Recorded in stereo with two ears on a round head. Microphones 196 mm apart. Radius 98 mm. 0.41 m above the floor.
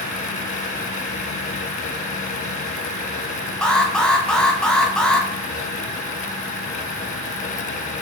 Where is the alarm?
5° left (ahead or behind), 1.8 m.